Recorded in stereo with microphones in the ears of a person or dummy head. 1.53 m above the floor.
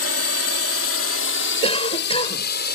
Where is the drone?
70° left (ahead or behind); by 2.8 s 65° left (ahead or behind).